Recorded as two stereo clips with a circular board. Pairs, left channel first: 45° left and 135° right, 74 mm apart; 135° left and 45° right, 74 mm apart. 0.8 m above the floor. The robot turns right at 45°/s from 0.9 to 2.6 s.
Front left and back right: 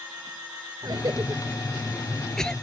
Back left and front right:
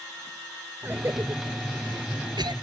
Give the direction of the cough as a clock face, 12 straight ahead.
4 o'clock.